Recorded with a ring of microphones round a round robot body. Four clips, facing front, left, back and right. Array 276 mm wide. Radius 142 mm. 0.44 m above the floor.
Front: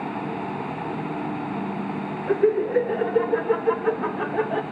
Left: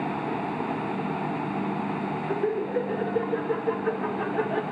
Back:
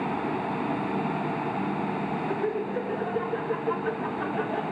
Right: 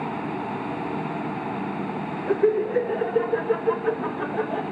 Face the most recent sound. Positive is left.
turn(degrees=20)